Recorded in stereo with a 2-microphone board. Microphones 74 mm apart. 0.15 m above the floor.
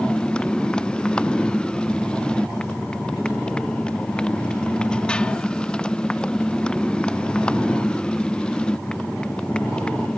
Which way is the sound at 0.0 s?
10° left (ahead or behind).